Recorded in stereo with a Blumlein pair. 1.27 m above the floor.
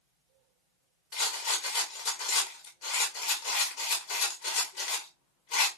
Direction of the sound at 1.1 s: 40° left.